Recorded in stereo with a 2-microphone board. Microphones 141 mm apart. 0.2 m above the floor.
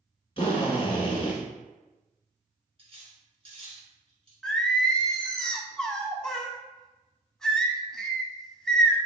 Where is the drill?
40° left (ahead or behind), 1.2 m.